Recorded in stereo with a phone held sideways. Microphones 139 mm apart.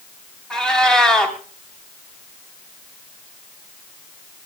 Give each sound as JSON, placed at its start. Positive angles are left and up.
{"t": 0.5, "sound": "a cat meowing", "side_deg": 5, "distance_m": 3.0}